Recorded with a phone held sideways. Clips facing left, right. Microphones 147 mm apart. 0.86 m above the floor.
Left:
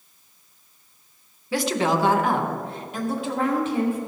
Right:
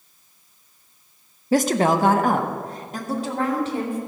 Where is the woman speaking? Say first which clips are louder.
Right 4 dB; 45° right (ahead or behind), 0.6 m; by 4.0 s 35° right (ahead or behind), 2.5 m.